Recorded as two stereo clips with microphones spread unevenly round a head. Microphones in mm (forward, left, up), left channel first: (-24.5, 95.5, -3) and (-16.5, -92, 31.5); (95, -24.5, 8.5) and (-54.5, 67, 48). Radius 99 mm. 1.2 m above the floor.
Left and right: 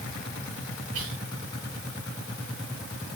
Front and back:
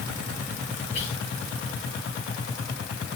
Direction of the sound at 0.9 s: 90° right.